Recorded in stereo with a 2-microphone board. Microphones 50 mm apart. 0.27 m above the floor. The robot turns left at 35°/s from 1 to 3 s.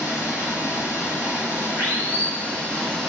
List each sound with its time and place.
0.0 s running water: 75° left, 2.0 m; by 3.1 s 5° left, 2.0 m